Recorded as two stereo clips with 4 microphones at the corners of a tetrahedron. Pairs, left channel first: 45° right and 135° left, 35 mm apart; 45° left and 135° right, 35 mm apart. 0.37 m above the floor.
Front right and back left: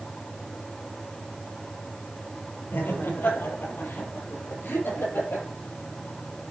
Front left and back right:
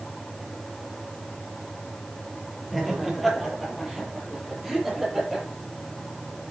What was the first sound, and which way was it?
Laughter, 45° right.